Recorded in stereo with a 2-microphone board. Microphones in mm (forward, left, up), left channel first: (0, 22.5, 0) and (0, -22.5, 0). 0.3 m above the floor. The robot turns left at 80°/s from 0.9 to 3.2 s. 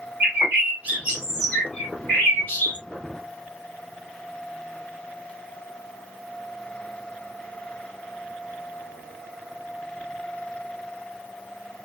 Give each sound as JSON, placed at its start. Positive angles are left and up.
{"t": 0.2, "sound": "a bird", "azimuth_deg": -135, "distance_m": 2.0}